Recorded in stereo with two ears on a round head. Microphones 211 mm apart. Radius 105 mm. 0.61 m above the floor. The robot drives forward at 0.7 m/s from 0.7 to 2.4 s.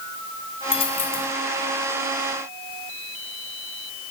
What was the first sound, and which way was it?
A dropped coin, 25° left (ahead or behind).